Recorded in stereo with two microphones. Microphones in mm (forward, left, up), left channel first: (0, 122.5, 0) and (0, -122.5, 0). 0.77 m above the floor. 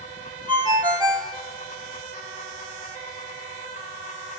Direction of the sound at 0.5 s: 15° right (ahead or behind).